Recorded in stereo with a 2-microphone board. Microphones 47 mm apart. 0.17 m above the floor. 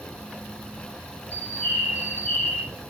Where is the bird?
45° right (ahead or behind), 2 m.